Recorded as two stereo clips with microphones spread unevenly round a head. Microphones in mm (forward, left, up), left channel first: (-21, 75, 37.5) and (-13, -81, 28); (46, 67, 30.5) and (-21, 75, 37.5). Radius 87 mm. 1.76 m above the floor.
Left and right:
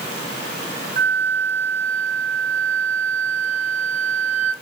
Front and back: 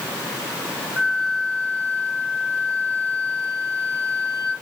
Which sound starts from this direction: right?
A flute, at 1.0 s.